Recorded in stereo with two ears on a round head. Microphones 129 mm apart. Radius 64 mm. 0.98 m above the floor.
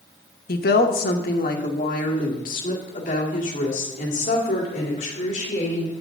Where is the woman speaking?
70° left (ahead or behind), 0.9 m; by 5.9 s 55° left (ahead or behind), 3.5 m.